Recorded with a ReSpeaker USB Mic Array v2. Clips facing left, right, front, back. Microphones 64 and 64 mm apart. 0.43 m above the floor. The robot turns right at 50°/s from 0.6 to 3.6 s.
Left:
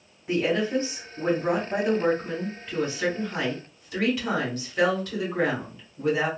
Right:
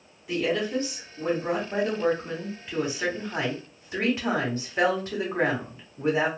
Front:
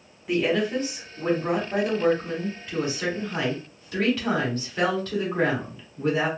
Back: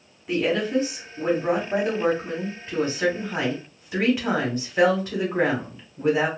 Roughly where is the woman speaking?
Left.